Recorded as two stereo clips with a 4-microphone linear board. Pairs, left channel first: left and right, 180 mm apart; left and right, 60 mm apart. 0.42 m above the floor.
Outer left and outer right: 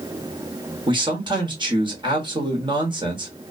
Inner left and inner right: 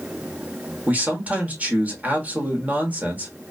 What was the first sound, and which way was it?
A man speaking, 25° right (ahead or behind).